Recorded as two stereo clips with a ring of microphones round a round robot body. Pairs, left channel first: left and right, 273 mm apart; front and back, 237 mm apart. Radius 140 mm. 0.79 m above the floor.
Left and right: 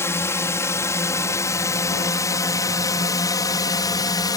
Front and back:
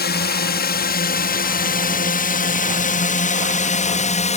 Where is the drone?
15° left; by 4.4 s 25° left.